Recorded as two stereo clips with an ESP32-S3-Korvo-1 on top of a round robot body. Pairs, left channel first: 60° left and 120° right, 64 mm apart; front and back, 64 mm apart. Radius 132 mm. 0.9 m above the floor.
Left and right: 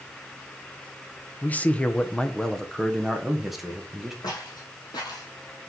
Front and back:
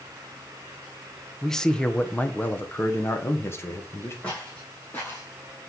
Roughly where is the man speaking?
Left.